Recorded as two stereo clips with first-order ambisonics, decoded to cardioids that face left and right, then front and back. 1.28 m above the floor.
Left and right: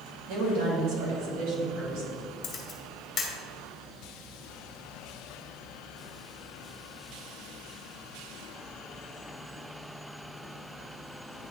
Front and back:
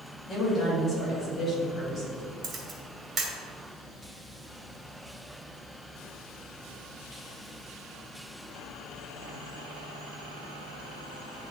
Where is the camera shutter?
130° left, 1.3 m.